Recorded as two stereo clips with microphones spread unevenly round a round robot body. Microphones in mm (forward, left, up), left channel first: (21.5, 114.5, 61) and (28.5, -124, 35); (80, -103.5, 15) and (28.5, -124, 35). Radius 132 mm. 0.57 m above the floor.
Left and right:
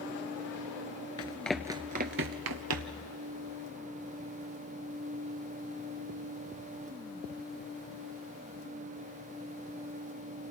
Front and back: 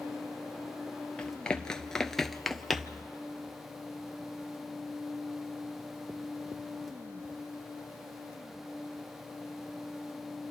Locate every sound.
1.2 s running footsteps: 125° left, 0.6 m; by 3.0 s 80° right, 1.0 m